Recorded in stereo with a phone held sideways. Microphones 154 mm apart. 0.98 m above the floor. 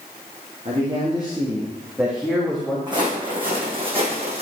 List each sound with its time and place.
0.7 s a man speaking: 40° right (ahead or behind), 1.7 m; by 2.8 s 5° left (ahead or behind), 1.8 m
2.9 s footsteps: 30° right (ahead or behind), 3 m; by 4.4 s 45° right (ahead or behind), 2.5 m